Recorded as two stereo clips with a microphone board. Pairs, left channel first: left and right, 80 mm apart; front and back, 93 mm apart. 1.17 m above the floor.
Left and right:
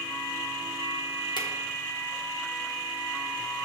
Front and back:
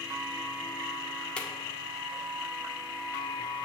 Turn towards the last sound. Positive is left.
turn(degrees=80)